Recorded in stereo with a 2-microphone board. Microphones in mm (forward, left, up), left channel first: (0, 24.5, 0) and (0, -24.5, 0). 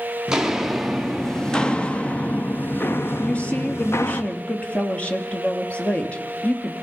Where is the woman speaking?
25° left (ahead or behind), 3 m.